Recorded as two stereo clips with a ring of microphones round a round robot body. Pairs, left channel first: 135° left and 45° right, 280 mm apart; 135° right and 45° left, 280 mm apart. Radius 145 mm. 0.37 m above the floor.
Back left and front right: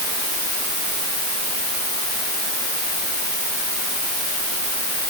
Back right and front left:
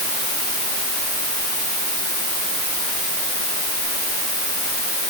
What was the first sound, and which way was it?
Only background noise.